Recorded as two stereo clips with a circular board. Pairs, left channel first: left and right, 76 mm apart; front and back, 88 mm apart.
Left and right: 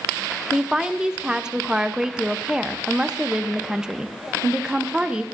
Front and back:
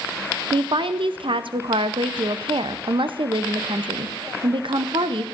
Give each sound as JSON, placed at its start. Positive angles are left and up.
{"t": 0.5, "sound": "a woman speaking", "azimuth_deg": -170, "distance_m": 0.6}